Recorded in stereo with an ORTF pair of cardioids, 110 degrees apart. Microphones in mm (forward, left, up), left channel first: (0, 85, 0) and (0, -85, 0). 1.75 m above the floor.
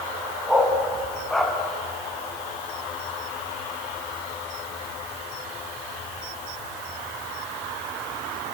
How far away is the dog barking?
About 5 m.